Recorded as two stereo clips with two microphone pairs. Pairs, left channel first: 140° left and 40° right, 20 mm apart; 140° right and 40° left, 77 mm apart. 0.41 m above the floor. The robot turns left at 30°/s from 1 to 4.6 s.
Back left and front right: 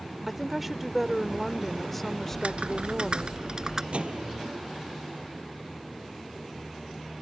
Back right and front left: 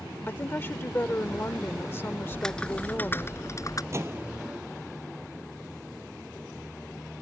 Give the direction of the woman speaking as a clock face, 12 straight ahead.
4 o'clock.